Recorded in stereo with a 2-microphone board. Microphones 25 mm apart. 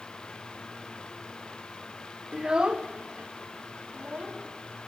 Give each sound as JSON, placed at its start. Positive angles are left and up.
{"t": 2.3, "sound": "a child speaking", "side_deg": -25, "distance_m": 0.5}